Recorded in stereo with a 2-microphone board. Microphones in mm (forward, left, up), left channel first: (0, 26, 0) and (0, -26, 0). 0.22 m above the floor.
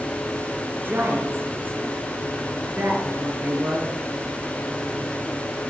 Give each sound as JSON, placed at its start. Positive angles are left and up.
{"t": 0.8, "sound": "a woman speaking", "side_deg": -45, "distance_m": 3.0}